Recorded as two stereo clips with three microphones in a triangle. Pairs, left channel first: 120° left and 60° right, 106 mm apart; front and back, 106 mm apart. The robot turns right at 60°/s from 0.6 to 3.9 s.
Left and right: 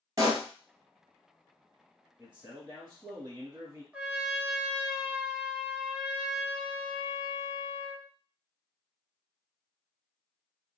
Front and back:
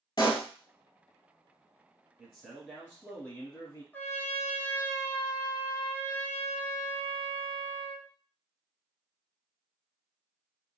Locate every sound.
0.2 s a pop: 20° right, 0.8 m
2.2 s a man speaking: 130° right, 1.3 m; by 3.8 s 30° right, 1.3 m
3.9 s a trumpet: 15° right, 0.7 m